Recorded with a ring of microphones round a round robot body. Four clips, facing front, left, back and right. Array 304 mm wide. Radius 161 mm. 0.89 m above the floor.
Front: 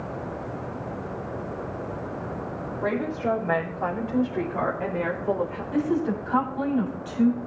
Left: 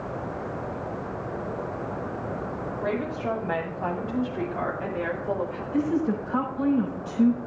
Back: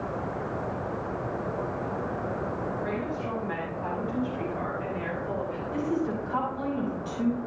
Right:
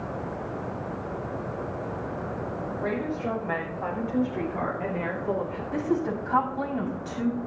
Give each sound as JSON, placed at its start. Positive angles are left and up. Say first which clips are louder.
{"t": 2.8, "sound": "a woman speaking", "louder": "left 1 dB, front 5 dB", "azimuth_deg": -10, "distance_m": 5.5}
{"t": 5.7, "sound": "a woman speaking", "louder": "left 2 dB, front 4 dB", "azimuth_deg": -55, "distance_m": 7.0}